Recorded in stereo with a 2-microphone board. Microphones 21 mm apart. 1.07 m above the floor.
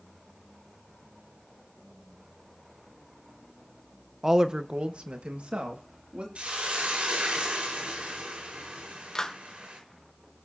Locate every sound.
4.2 s a woman speaking: 20° right (ahead or behind), 0.9 m; by 6.2 s 75° right (ahead or behind), 2.5 m
6.3 s a hiss: 80° right, 4.5 m
9.2 s a clap: 25° left (ahead or behind), 3 m